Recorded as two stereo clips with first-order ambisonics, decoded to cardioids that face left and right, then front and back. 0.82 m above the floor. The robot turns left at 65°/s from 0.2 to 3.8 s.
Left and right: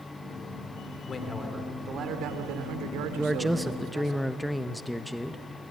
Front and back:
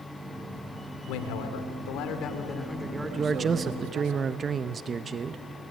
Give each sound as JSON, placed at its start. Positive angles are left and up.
{"t": 1.1, "sound": "a man speaking", "azimuth_deg": 25, "distance_m": 3.0}
{"t": 3.1, "sound": "a man speaking", "azimuth_deg": -145, "distance_m": 0.6}